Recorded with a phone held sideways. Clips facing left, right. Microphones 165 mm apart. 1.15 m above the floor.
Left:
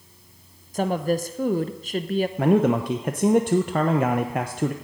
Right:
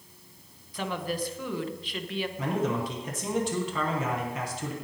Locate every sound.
0.7 s a woman speaking: 45° left (ahead or behind), 0.7 m
2.4 s a man speaking: 60° left (ahead or behind), 0.7 m